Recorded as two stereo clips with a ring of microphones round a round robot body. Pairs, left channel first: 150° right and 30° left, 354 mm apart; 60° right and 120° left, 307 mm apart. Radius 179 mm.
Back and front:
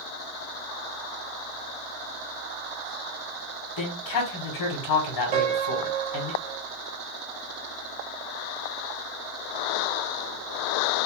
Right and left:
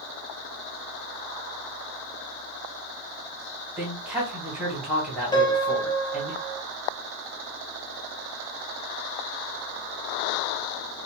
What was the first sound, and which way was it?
A man speaking, 155° right.